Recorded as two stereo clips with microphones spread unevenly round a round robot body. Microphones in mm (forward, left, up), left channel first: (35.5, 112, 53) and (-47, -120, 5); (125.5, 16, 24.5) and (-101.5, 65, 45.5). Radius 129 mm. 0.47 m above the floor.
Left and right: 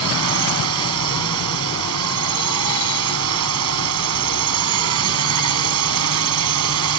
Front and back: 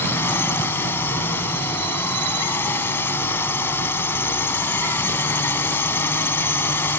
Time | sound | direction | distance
0.0 | a drone | 95° right | ?